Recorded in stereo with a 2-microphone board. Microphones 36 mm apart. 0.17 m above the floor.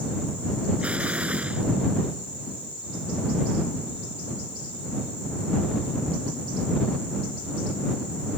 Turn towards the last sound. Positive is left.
turn(degrees=-40)  # may be behind; listen again after turning